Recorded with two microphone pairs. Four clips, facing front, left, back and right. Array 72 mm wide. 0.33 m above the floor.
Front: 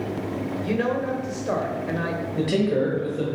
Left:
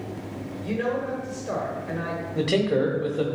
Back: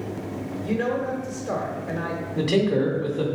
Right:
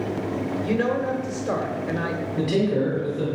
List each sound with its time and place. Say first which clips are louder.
0.6 s a woman speaking: right 2 dB, even; 55° right, 1.2 m
2.4 s a man speaking: even, back 1 dB; 95° left, 1.4 m